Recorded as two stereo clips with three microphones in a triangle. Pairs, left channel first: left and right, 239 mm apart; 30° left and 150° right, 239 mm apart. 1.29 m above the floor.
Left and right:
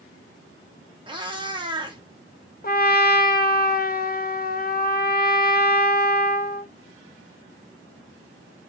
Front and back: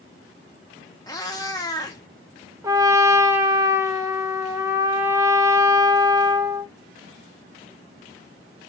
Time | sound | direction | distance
1.1 | a cat meowing | 35° right | 0.8 m
2.6 | a trumpet | 135° left | 0.5 m